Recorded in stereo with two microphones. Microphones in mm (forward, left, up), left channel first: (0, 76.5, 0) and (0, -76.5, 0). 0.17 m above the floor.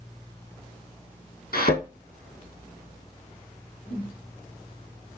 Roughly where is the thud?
Left.